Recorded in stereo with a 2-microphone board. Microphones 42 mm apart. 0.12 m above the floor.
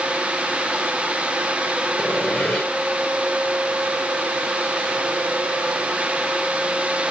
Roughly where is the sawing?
Left.